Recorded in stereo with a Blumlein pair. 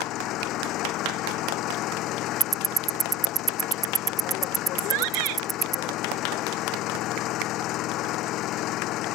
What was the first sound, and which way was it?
An engine running, 35° left.